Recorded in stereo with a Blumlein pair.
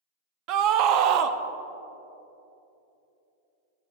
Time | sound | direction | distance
0.5 | a scream | 40° right | 0.5 m